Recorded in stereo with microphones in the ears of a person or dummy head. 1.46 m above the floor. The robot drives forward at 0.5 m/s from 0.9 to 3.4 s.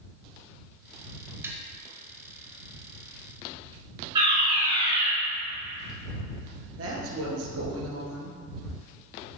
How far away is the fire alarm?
About 2.5 m.